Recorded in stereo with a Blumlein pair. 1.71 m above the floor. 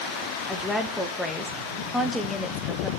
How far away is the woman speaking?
About 1.3 m.